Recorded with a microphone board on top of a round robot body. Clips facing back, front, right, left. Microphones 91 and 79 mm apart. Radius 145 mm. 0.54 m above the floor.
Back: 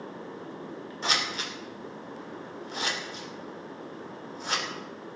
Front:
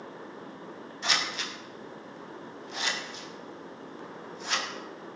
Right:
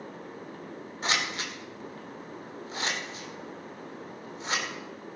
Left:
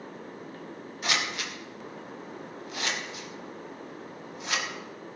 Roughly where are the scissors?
Behind right.